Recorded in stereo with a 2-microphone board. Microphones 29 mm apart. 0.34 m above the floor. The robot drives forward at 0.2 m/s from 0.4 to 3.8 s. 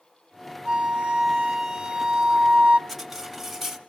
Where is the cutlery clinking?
Centre (ahead or behind), 0.9 m.